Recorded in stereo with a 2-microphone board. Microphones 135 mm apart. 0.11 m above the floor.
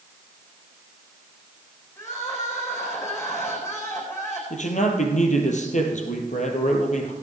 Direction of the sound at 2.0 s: 20° left (ahead or behind).